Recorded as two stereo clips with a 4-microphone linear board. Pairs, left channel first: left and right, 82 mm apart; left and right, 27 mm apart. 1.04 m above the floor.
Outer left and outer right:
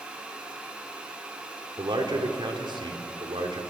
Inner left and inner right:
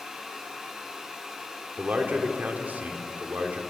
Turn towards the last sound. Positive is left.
turn(degrees=-80)